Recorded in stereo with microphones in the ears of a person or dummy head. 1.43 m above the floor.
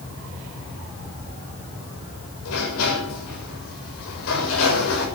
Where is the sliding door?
85° left, 6.5 m.